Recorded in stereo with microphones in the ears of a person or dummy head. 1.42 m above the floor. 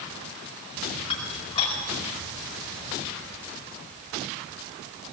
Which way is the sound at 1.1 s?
35° left (ahead or behind).